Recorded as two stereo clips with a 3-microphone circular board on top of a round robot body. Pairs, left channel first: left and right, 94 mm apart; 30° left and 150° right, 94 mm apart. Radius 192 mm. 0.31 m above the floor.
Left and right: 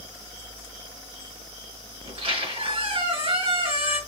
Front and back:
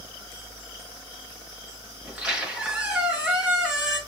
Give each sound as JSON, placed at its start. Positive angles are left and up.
{"t": 2.0, "sound": "a squeak", "azimuth_deg": -70, "distance_m": 4.5}